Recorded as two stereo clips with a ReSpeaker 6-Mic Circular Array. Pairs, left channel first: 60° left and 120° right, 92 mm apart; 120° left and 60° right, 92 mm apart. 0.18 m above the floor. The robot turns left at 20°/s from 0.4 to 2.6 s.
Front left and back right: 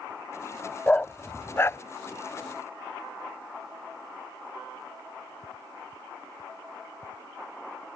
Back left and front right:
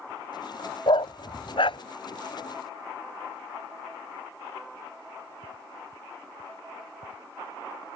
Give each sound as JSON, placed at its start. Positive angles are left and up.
{"t": 0.9, "sound": "a dog barking", "azimuth_deg": 135}